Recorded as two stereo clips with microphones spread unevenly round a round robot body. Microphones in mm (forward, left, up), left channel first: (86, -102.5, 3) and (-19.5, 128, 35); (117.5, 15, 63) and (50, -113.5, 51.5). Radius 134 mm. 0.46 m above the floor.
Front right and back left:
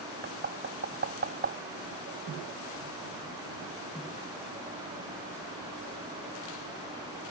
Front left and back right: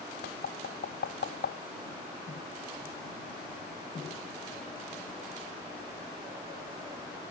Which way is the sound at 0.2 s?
65° left.